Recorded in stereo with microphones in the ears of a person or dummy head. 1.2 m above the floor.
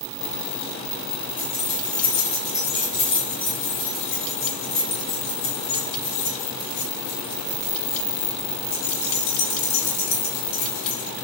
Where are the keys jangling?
20° left (ahead or behind), 5 m; by 11.1 s 80° left, 7 m.